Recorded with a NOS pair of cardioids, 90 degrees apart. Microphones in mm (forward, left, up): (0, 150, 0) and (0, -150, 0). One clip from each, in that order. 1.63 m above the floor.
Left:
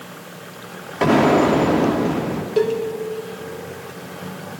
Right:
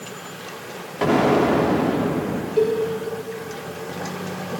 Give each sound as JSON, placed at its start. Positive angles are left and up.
{"t": 1.0, "sound": "an explosion", "azimuth_deg": 20, "distance_m": 1.1}
{"t": 2.6, "sound": "a cowbell", "azimuth_deg": 60, "distance_m": 1.6}